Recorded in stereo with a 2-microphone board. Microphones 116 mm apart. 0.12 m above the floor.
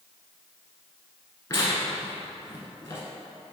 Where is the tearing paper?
25° left (ahead or behind), 1.1 m.